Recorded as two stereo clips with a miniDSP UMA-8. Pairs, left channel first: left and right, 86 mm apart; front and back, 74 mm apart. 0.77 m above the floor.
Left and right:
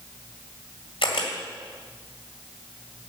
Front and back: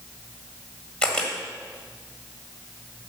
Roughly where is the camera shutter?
Left.